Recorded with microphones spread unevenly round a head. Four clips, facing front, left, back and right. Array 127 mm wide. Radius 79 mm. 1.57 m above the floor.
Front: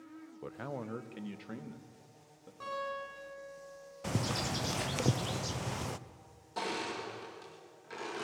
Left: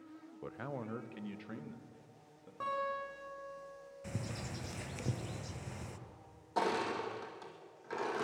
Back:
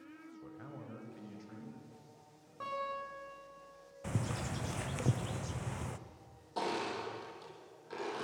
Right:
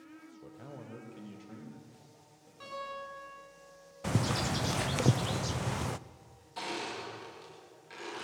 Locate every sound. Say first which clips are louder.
0.4 s a man speaking: left 7 dB, front 10 dB; 20° left, 0.9 m; by 2.5 s 15° left, 4 m
2.6 s a guitar: left 4 dB, front 1 dB; 125° left, 6 m
4.0 s a bird: right 12 dB, front 4 dB; 60° right, 0.6 m
6.6 s crushing: left 5 dB, back 1 dB; 105° left, 3 m